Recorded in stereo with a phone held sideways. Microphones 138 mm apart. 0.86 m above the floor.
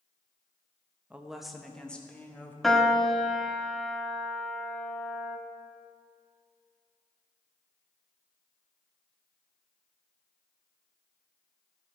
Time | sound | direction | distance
1.1 | a woman speaking | 10° right (ahead or behind) | 0.7 m
2.6 | a piano | centre (ahead or behind) | 0.8 m